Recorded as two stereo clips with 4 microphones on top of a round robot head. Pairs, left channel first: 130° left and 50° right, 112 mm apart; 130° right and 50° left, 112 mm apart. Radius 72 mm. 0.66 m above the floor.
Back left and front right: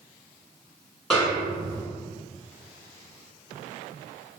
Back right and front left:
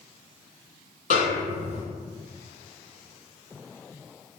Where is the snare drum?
140° right, 1.5 m.